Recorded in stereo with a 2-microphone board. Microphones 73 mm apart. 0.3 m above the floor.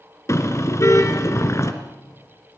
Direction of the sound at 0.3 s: 40° left (ahead or behind).